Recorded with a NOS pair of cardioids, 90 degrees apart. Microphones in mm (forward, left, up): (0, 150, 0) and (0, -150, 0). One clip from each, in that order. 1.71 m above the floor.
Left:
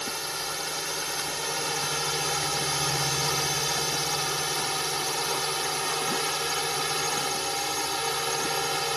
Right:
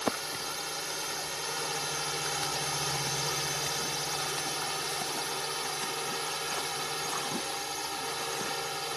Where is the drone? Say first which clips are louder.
Left 2 dB; 30° left; by 9.0 s 50° left.